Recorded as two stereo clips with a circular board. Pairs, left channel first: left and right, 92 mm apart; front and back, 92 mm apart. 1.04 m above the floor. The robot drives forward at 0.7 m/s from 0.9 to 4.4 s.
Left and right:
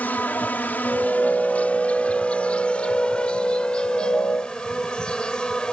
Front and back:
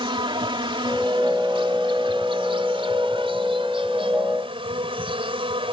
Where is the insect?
160° left; by 5.7 s 170° left.